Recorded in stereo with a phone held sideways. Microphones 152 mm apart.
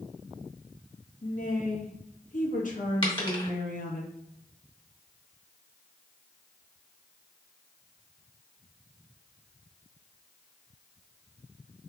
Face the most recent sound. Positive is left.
turn(degrees=35)  # may be behind; listen again after turning